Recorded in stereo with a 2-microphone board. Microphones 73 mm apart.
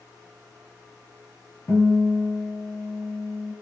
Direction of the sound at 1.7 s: 40° left (ahead or behind).